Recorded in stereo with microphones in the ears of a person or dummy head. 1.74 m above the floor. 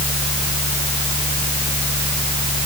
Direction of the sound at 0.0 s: 30° left (ahead or behind).